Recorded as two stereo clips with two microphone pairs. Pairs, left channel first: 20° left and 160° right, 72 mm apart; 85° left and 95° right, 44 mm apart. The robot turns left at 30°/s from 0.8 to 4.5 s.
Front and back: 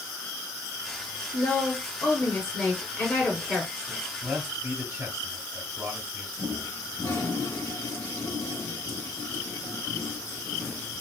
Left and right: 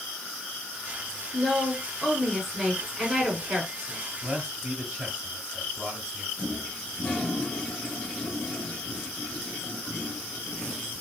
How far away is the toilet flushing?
About 1.4 m.